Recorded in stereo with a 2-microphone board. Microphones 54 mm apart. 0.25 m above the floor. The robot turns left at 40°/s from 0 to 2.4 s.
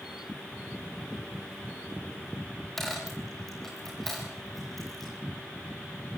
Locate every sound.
2.8 s a dropped coin: 5° left (ahead or behind), 10 m